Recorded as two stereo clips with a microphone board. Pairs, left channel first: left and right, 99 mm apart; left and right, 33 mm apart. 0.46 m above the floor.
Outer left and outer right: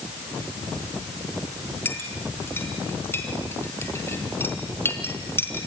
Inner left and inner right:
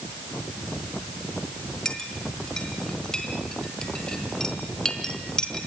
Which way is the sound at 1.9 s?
25° left (ahead or behind).